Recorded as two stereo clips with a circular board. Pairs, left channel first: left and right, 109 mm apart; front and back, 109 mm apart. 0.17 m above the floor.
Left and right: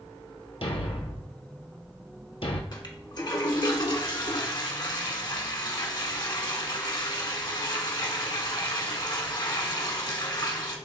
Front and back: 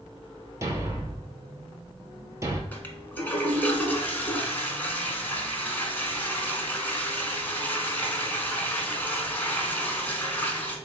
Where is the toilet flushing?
65° left, 0.9 m.